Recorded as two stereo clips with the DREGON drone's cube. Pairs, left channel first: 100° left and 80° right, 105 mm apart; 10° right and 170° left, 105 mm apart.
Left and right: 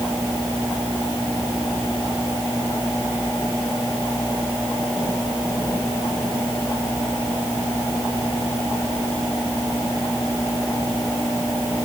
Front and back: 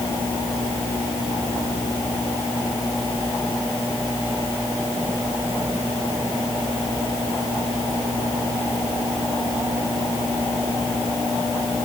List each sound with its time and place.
Only background noise.